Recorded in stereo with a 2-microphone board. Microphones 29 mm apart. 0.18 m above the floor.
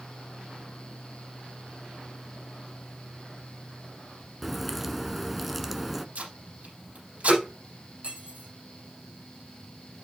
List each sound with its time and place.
4.4 s a crack: 5° right (ahead or behind), 0.9 m
6.2 s tape being pulled: 55° right (ahead or behind), 5.5 m
8.0 s cutlery clinking: 50° right (ahead or behind), 5.5 m